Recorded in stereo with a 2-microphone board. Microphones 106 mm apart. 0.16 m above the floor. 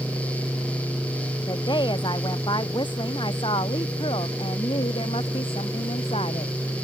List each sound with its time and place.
1.5 s a woman speaking: 45° left (ahead or behind); by 6.5 s 70° left (ahead or behind)